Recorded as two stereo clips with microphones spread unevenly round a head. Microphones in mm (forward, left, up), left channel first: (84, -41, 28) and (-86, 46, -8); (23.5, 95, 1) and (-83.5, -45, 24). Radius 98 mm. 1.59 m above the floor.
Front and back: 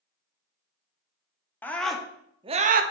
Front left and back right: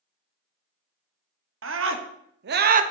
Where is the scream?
110° right, 1.3 m; by 2.8 s 170° right, 0.8 m.